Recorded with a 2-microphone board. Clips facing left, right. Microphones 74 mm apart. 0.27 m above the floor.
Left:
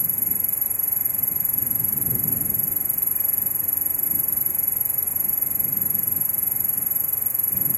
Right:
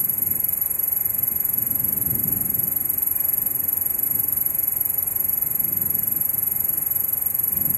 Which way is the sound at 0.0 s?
Centre (ahead or behind).